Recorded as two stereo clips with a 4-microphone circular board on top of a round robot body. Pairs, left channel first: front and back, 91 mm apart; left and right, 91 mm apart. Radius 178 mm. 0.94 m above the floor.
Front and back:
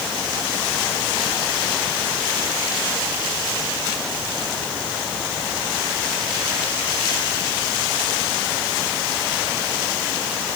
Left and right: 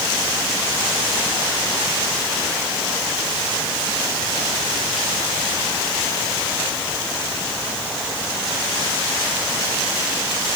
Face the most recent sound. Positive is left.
No sound to turn to.